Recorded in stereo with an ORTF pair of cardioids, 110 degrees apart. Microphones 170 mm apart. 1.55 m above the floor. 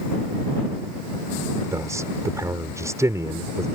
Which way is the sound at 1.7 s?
20° right.